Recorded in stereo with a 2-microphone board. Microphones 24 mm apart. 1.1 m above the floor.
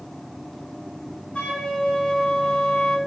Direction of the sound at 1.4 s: 45° left (ahead or behind).